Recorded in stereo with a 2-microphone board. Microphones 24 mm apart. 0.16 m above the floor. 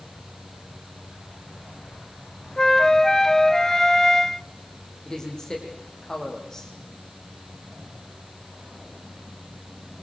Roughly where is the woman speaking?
Left.